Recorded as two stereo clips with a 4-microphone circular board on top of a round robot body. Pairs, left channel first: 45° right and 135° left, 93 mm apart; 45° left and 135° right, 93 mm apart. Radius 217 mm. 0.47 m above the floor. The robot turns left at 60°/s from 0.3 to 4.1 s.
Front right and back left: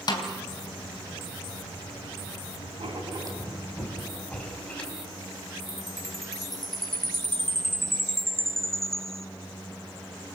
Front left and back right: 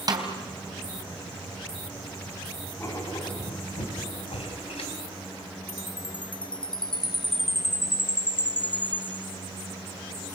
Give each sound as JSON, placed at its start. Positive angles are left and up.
{"t": 0.1, "sound": "a snare drum", "azimuth_deg": -85, "distance_m": 3.0}
{"t": 2.8, "sound": "writing", "azimuth_deg": 115, "distance_m": 4.5}
{"t": 5.7, "sound": "a chime", "azimuth_deg": 40, "distance_m": 1.4}